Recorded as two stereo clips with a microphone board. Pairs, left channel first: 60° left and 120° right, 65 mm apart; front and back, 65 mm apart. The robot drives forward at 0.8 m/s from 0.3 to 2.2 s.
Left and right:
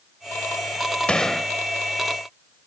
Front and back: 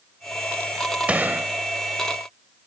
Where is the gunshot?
120° left; by 1.5 s 145° left.